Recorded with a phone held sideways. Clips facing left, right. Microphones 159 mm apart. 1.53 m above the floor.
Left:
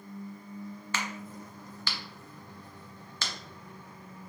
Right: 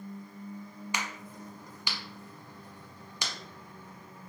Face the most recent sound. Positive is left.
turn(degrees=-15)  # may be behind; listen again after turning